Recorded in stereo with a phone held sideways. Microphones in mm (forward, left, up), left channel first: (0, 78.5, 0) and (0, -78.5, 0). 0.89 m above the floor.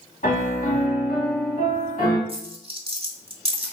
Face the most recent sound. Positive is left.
turn(degrees=-35)  # may be behind; listen again after turning